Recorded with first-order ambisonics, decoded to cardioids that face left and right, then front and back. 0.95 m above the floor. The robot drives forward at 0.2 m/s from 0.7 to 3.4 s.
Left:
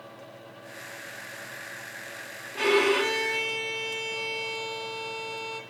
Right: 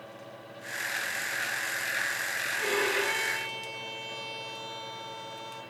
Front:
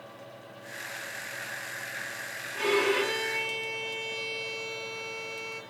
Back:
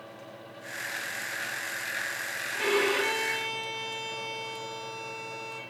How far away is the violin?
About 0.9 m.